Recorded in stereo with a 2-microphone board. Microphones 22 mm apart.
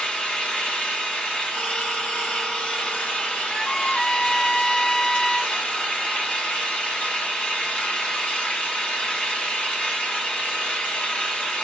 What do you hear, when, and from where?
0.0 s an engine running: 65° left (ahead or behind), 1.6 m
3.5 s a trumpet: 30° left (ahead or behind), 0.5 m